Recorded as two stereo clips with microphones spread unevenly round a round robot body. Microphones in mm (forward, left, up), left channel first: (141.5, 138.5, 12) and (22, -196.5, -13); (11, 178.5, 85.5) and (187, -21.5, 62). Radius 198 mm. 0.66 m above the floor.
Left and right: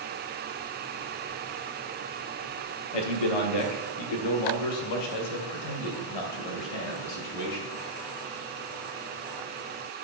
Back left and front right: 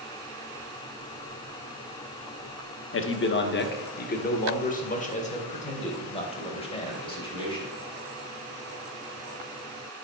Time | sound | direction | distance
2.9 | a man speaking | 90° left | 1.1 m